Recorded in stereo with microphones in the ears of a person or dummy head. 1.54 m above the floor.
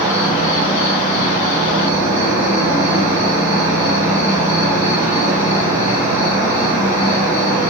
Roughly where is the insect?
Centre.